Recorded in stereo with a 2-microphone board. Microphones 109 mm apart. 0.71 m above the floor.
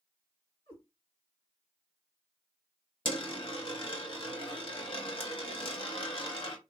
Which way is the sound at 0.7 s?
70° left (ahead or behind).